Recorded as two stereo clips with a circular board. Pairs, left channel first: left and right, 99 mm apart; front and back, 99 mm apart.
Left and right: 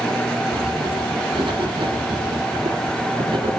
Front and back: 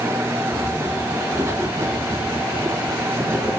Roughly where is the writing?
Behind right.